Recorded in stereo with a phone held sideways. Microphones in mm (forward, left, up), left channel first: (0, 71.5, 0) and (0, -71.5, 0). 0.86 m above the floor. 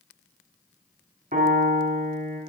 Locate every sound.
1.3 s a piano: 75° right (ahead or behind), 3 m